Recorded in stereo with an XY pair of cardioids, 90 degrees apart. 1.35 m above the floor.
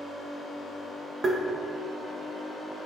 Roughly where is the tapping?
Ahead right.